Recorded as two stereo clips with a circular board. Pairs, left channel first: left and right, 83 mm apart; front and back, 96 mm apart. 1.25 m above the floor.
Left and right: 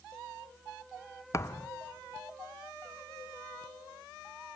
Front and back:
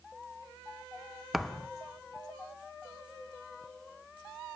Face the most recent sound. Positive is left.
turn(degrees=90)